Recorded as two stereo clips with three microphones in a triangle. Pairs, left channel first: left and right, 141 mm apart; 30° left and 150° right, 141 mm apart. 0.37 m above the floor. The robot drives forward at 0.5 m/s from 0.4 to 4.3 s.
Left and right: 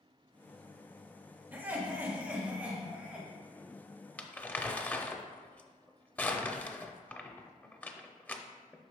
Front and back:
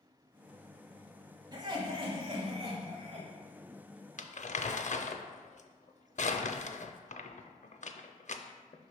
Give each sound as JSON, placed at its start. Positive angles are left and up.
{"t": 1.5, "sound": "laughter", "azimuth_deg": -150, "distance_m": 1.2}
{"t": 4.2, "sound": "crumpling", "azimuth_deg": 15, "distance_m": 0.5}